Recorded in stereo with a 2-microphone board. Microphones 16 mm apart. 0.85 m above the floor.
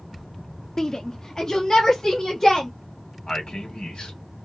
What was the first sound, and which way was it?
A shout, 30° left (ahead or behind).